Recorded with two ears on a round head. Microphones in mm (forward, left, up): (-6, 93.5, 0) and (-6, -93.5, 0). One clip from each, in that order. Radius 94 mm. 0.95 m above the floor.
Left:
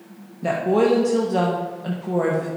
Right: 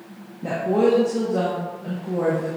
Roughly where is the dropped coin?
I don't hear a dropped coin.